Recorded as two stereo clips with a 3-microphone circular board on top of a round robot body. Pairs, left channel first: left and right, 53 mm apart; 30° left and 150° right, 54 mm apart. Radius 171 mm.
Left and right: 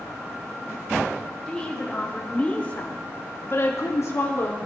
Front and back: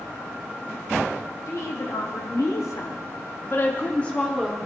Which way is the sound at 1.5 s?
10° left.